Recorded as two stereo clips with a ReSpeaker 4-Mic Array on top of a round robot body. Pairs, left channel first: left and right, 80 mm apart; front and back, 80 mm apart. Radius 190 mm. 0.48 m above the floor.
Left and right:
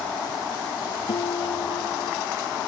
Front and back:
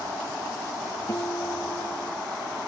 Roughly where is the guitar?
Ahead left.